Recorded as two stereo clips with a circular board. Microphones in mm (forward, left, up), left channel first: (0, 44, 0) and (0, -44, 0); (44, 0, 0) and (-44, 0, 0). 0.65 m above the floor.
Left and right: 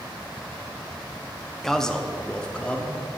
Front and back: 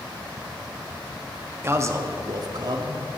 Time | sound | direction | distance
1.6 | a man speaking | 170° left | 0.7 m